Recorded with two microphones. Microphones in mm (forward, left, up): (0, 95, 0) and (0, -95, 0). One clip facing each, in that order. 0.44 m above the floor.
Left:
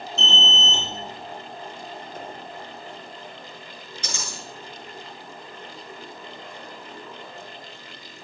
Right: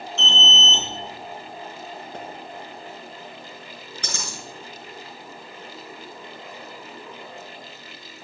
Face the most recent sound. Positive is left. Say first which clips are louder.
# right 1 dB
turn(degrees=-60)  # may be behind; listen again after turning